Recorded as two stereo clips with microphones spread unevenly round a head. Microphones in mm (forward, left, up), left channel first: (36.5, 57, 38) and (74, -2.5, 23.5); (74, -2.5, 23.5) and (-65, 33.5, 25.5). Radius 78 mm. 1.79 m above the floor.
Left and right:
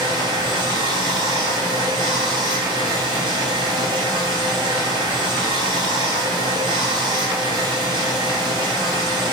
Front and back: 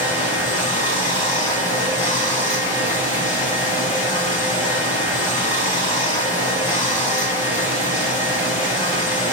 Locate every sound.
0.0 s running water: 115° right, 1.5 m